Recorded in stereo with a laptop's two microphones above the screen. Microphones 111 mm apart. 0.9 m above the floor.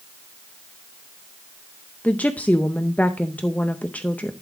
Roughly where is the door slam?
No door slam in this recording.